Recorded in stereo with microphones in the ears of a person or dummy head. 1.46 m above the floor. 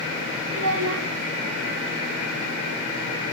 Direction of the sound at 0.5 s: 65° right (ahead or behind).